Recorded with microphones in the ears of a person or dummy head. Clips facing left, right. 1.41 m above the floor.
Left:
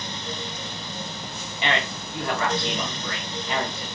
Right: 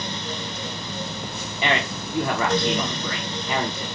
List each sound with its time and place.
1.6 s a man speaking: 85° right, 1.0 m